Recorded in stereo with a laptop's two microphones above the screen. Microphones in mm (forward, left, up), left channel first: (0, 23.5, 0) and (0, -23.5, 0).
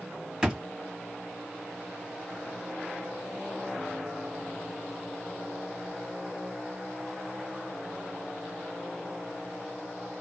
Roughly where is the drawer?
Centre.